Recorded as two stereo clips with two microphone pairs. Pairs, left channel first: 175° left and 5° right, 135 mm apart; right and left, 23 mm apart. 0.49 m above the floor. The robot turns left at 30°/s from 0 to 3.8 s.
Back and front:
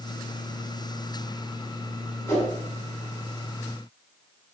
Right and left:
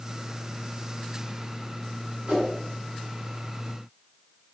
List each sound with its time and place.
2.3 s a whoosh: 110° left, 5 m; by 2.5 s 100° left, 5 m